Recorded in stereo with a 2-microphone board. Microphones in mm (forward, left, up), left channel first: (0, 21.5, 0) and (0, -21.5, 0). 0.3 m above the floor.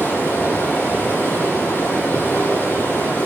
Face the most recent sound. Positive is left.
turn(degrees=80)